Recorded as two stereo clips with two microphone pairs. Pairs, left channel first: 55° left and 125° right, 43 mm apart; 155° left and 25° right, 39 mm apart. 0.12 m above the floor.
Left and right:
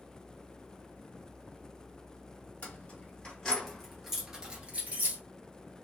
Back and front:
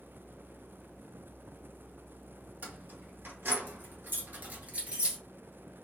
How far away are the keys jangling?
About 1.8 m.